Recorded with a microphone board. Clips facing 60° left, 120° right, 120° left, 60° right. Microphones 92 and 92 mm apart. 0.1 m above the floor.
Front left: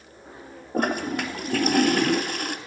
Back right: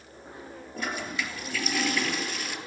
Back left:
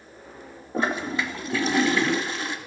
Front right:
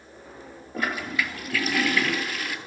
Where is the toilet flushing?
60° left, 1.3 m.